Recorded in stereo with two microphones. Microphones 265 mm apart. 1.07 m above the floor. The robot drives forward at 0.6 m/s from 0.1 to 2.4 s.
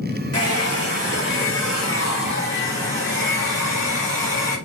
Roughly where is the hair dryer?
Left.